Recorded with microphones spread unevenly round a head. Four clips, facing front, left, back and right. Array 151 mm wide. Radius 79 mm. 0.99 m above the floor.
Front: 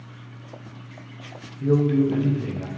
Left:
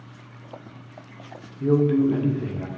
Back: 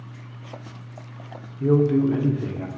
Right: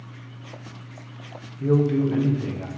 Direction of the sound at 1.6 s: 165° left.